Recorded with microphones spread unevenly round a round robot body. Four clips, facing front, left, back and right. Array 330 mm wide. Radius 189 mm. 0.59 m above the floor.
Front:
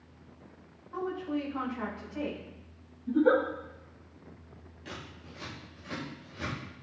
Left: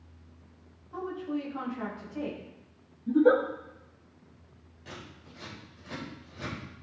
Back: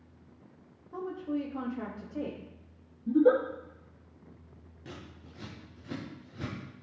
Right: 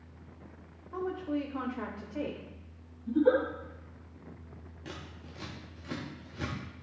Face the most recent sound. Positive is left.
turn(degrees=-130)